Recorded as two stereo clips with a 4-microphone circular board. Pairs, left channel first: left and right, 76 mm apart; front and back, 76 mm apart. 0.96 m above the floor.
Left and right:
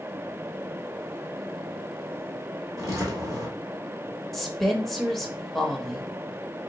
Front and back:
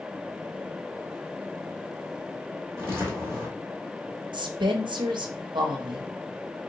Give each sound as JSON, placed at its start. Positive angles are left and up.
{"t": 2.8, "sound": "footsteps", "azimuth_deg": -125, "distance_m": 1.7}
{"t": 4.3, "sound": "a woman speaking", "azimuth_deg": 180, "distance_m": 0.8}